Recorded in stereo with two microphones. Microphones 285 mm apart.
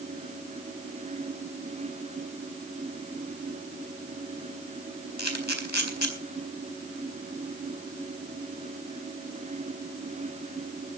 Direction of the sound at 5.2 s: 75° left (ahead or behind).